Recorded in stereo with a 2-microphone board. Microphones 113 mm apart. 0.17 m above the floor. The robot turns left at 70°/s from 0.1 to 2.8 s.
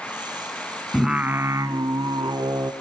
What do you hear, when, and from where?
0.9 s singing: straight ahead, 1.0 m; by 2.7 s 125° right, 1.0 m